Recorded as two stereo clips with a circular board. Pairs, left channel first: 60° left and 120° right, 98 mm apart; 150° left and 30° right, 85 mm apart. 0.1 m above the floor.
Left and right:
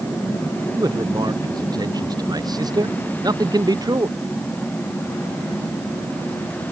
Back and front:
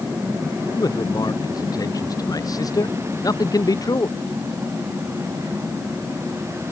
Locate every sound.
0.7 s a man speaking: 165° right